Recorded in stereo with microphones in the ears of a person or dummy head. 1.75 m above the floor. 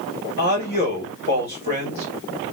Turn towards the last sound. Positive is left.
turn(degrees=50)  # may be behind; listen again after turning